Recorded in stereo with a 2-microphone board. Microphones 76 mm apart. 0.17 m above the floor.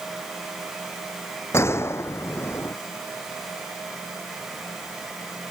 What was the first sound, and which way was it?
A gunshot, 35° left (ahead or behind).